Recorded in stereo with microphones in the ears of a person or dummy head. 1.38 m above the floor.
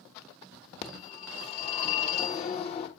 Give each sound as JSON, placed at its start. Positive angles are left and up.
{"t": 0.8, "sound": "a phone ringing", "side_deg": 40, "distance_m": 1.0}